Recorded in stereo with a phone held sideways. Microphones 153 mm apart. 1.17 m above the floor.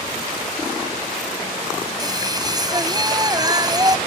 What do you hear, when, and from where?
2.0 s singing: 25° right (ahead or behind)